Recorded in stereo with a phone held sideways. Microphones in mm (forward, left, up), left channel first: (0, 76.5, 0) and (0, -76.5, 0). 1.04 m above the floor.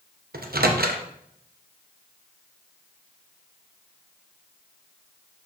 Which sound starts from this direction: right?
A microwave, at 0.3 s.